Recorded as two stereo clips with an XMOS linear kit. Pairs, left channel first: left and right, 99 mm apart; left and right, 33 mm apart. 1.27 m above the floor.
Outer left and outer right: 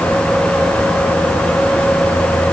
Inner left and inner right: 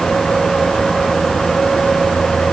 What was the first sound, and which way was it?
Only background noise.